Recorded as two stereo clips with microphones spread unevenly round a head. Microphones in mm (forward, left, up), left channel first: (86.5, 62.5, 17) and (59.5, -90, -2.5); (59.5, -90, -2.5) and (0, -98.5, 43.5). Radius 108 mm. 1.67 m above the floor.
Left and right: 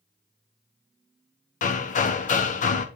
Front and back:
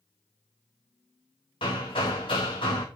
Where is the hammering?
75° left, 0.7 m.